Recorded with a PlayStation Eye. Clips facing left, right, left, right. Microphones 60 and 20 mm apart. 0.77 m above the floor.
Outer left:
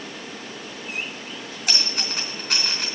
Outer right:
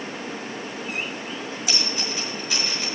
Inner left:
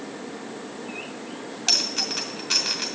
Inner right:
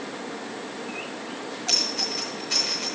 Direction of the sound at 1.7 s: 55° left (ahead or behind).